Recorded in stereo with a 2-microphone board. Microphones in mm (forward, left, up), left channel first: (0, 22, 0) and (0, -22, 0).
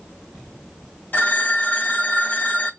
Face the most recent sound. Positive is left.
turn(degrees=55)  # may be behind; listen again after turning